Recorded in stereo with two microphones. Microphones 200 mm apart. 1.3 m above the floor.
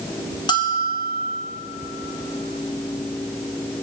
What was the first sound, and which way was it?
A bell, 20° left (ahead or behind).